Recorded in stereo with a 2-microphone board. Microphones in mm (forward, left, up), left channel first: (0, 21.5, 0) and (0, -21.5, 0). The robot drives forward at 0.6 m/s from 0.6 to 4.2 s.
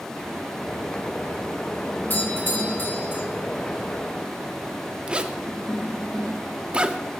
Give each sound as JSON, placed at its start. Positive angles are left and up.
{"t": 2.1, "sound": "a doorbell", "side_deg": 45, "distance_m": 1.5}
{"t": 5.1, "sound": "a zipper", "side_deg": -25, "distance_m": 0.5}